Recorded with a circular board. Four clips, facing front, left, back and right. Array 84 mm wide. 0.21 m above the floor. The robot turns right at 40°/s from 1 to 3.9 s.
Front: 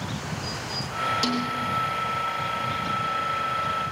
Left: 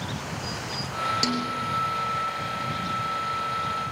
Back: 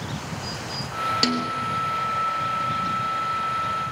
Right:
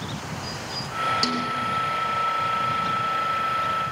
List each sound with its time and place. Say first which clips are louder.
1.2 s a snare drum: right 1 dB, back 2 dB; 175° left, 3.5 m; by 1.4 s 175° right, 3.5 m